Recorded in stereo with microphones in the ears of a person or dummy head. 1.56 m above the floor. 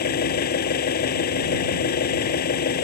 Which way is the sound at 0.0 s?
50° left (ahead or behind).